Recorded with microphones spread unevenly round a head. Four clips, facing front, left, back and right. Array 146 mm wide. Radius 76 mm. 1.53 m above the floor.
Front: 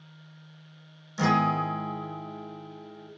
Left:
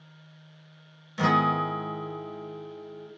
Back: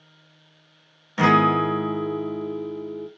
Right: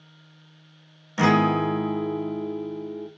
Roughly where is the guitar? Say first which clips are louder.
Right 4 dB, back 7 dB; behind right.